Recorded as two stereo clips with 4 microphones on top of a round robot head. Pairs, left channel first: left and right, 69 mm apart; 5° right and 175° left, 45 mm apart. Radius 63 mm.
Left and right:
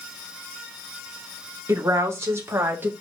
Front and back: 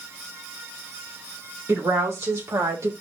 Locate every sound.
1.7 s a woman speaking: 140° right, 3 m; by 2.9 s 155° right, 2.5 m